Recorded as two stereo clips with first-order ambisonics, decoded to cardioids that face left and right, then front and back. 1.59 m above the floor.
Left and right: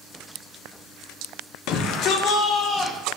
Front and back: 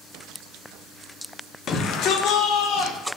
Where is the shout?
60° left, 0.9 m; by 3.0 s 25° left, 1.8 m.